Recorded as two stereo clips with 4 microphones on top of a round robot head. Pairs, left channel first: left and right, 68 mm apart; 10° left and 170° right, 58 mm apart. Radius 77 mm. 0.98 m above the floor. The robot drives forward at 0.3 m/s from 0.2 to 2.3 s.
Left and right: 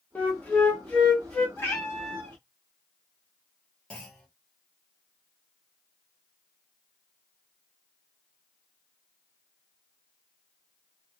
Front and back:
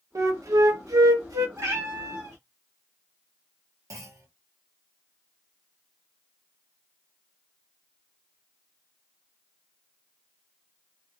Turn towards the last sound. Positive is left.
turn(degrees=165)